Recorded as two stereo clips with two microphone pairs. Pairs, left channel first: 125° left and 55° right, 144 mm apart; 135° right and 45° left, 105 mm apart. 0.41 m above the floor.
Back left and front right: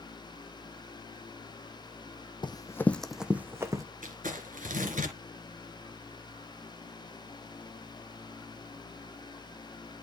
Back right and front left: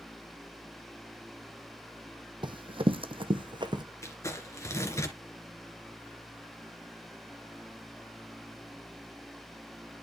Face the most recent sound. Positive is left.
turn(degrees=-70)